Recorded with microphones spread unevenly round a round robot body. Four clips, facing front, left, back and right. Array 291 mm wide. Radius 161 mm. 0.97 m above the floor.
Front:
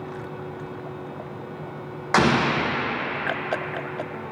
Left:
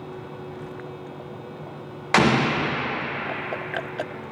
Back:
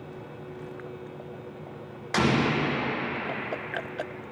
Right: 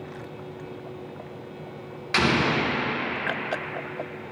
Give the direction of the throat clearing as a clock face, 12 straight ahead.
No throat clearing in this recording.